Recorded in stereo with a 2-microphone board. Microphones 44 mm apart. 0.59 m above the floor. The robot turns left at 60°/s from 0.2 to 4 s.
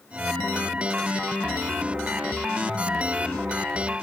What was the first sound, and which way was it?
Only background noise.